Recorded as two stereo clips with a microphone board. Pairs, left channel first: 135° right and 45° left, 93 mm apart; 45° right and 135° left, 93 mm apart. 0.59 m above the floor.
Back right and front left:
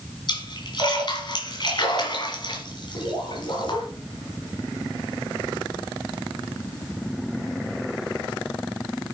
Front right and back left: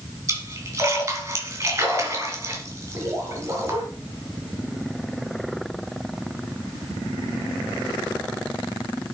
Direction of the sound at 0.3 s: 165° right.